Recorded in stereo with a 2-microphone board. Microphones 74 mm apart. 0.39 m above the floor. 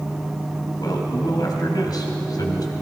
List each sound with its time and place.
0.8 s a man speaking: 65° left (ahead or behind), 2 m